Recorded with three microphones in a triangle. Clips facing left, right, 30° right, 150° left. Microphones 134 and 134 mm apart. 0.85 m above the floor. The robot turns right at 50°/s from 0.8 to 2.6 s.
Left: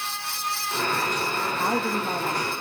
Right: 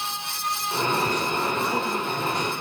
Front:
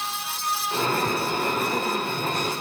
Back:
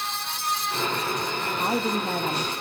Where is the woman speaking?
120° left, 0.8 m; by 2.5 s 170° left, 0.8 m.